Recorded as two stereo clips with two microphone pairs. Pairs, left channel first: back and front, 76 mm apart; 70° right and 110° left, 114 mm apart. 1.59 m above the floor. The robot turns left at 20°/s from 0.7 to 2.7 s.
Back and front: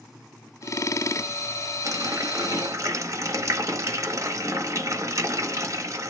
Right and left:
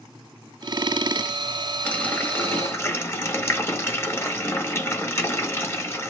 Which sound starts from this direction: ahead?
A running tap, at 1.9 s.